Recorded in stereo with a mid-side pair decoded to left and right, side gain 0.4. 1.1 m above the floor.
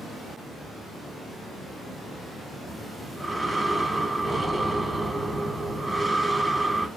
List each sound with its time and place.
2.7 s breathing: 15° right, 1.1 m